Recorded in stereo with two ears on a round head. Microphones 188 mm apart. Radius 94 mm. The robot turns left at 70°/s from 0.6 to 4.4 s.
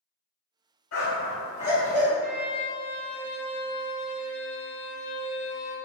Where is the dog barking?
70° left (ahead or behind), 1.7 m; by 2.1 s 5° right (ahead or behind), 1.7 m.